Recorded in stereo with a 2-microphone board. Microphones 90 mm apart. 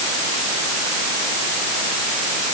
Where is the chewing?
No chewing in this recording.